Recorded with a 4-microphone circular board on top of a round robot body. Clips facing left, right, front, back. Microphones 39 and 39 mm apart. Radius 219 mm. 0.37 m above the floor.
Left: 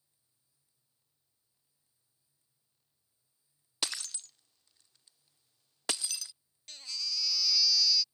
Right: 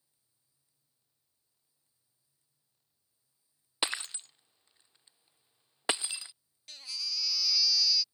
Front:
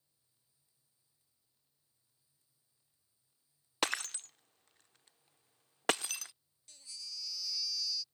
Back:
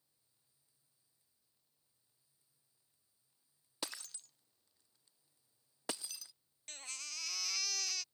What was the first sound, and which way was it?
Breaking glass, 25° right.